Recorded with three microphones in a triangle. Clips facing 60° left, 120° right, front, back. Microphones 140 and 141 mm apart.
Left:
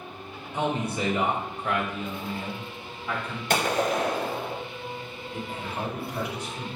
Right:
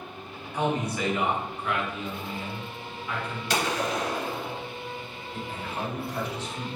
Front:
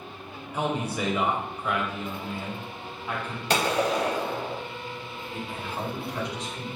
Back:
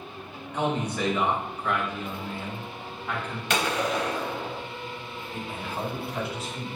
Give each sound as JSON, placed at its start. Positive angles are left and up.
{"t": 0.5, "sound": "a man speaking", "azimuth_deg": 65, "distance_m": 1.0}
{"t": 3.5, "sound": "a gunshot", "azimuth_deg": 45, "distance_m": 0.7}
{"t": 5.3, "sound": "a man speaking", "azimuth_deg": 105, "distance_m": 1.3}